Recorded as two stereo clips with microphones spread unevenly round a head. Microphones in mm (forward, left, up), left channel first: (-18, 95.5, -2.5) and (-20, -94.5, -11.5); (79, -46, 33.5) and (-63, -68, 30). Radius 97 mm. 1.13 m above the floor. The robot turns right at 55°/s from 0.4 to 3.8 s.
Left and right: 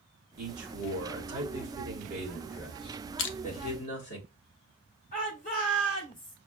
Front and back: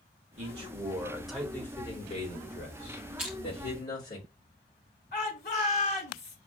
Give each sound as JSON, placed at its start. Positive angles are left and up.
{"t": 0.4, "sound": "a man speaking", "azimuth_deg": -130, "distance_m": 1.8}
{"t": 3.2, "sound": "crushing", "azimuth_deg": 105, "distance_m": 0.6}
{"t": 5.1, "sound": "a shout", "azimuth_deg": 35, "distance_m": 2.5}